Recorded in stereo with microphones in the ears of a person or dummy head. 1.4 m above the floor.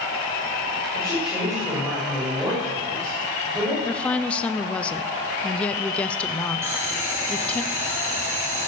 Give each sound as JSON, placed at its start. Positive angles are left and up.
{"t": 0.9, "sound": "a woman speaking", "side_deg": -5, "distance_m": 5.5}
{"t": 3.9, "sound": "a woman speaking", "side_deg": 10, "distance_m": 0.6}
{"t": 6.6, "sound": "boiling", "side_deg": -5, "distance_m": 2.0}